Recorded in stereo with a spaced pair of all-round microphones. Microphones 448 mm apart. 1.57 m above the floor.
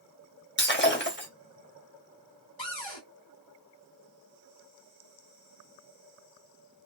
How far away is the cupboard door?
About 1.6 m.